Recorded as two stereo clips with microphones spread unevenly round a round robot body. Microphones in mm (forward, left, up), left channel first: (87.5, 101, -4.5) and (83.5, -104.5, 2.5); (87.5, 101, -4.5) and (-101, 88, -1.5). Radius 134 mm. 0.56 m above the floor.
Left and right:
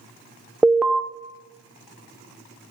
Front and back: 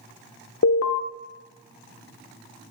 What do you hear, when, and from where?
0.6 s an alarm: 5° right, 0.8 m